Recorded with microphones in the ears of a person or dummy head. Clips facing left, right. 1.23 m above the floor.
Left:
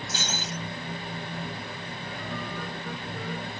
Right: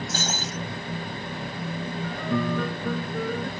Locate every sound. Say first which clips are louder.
0.1 s breaking glass: right 4 dB; 45° right (ahead or behind)
2.0 s a piano: right 11 dB; 55° right (ahead or behind)